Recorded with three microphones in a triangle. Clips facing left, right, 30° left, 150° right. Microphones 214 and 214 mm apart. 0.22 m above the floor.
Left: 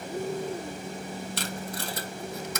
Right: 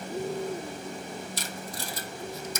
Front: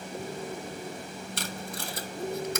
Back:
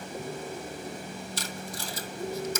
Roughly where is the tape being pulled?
Ahead left.